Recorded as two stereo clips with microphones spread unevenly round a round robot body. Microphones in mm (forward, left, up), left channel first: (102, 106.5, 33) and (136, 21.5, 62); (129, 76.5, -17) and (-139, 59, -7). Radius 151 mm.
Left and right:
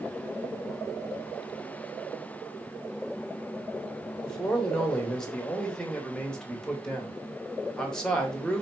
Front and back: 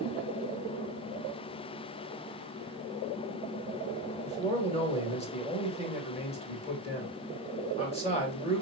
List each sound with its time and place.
4.2 s a man speaking: 55° left, 1.5 m